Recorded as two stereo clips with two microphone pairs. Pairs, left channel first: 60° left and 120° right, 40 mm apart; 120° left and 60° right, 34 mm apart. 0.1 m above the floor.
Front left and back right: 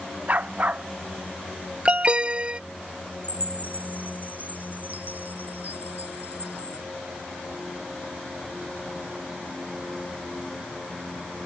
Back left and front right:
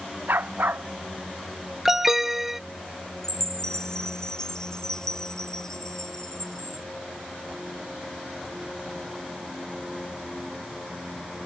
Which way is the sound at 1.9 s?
130° right.